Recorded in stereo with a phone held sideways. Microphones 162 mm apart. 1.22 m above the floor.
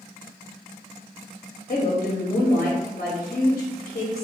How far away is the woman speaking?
About 0.7 m.